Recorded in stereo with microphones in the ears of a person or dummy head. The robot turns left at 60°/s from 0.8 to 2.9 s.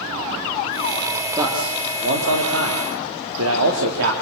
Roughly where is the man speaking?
Ahead.